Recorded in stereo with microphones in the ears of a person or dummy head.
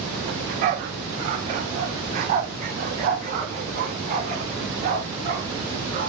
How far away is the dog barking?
About 1.7 m.